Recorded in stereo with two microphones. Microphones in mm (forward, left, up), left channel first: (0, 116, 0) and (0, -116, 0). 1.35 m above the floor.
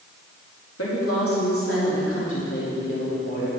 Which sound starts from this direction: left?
A woman speaking, at 0.8 s.